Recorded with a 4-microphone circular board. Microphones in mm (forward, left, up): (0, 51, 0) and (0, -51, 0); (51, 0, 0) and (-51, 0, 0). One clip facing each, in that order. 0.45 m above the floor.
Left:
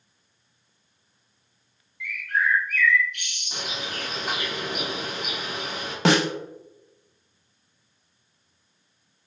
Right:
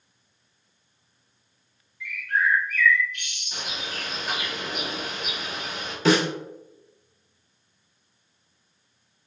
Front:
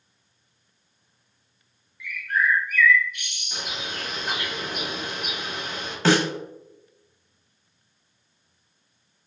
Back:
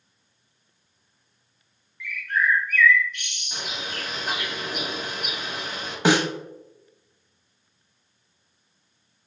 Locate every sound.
2.0 s a bird: 80° left, 0.9 m
3.5 s a bird: 100° left, 1.6 m
6.0 s a snare drum: 105° left, 0.5 m